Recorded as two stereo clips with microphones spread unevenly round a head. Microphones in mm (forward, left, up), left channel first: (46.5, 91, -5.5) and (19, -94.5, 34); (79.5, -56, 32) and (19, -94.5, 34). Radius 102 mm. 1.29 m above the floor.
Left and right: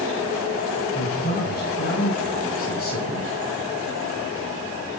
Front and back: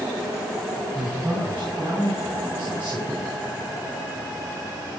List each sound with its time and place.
0.9 s a man speaking: 135° left, 8.5 m; by 3.3 s 130° left, 10 m